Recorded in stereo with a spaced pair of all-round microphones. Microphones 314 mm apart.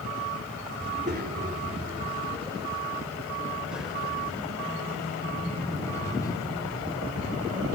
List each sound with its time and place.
0.8 s a child speaking: 35° right (ahead or behind), 3.5 m; by 7.7 s 15° left (ahead or behind), 9.5 m